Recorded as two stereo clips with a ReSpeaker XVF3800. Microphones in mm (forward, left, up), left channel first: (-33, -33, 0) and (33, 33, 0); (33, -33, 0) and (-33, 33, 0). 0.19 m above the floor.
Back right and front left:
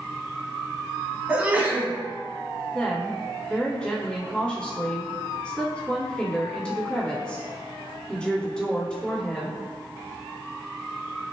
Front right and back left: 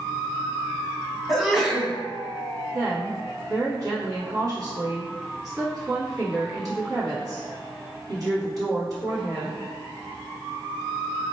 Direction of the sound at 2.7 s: 150° left.